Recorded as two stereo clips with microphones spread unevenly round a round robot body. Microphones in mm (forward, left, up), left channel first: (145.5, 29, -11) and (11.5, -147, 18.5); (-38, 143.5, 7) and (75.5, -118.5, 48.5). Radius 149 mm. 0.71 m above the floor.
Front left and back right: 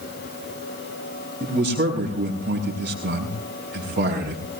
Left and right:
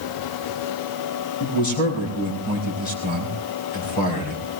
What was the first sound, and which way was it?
A man speaking, 175° left.